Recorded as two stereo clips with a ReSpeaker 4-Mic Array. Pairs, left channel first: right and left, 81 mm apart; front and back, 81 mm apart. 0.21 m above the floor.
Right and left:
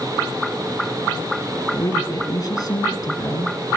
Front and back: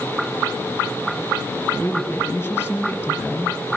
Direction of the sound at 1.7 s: 60° right.